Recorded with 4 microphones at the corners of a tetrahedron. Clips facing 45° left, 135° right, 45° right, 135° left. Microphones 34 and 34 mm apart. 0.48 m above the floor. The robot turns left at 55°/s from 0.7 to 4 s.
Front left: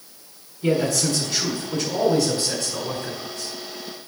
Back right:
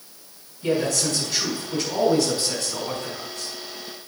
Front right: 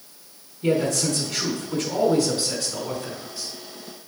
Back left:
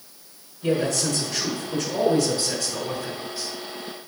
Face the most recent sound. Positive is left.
turn(degrees=165)